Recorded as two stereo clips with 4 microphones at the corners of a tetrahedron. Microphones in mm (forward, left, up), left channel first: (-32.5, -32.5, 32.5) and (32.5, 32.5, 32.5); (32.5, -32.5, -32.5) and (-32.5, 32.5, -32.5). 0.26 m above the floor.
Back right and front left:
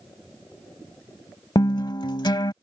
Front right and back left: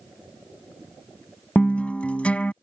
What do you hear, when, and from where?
1.6 s a guitar: 115° right